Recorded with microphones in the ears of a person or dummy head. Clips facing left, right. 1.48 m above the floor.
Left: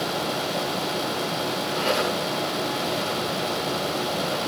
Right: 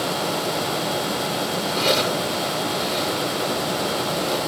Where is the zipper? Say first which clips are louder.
Right 3 dB; 50° right (ahead or behind), 6.5 m.